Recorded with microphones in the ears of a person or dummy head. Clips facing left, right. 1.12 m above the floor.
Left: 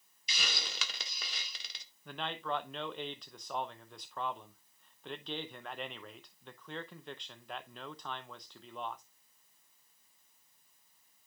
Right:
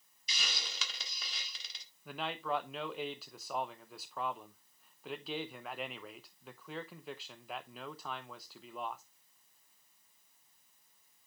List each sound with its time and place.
0.3 s a hiss: 55° left (ahead or behind), 1.6 m
2.0 s a man speaking: centre (ahead or behind), 0.6 m